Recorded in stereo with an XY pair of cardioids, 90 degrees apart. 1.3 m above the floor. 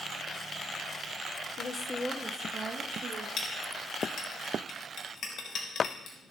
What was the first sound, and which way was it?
A woman speaking, 65° left.